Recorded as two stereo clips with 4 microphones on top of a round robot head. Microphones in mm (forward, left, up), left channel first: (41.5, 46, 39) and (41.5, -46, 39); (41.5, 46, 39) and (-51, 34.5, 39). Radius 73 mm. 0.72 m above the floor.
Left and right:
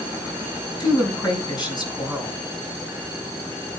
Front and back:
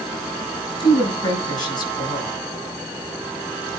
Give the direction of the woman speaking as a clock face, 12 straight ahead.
10 o'clock.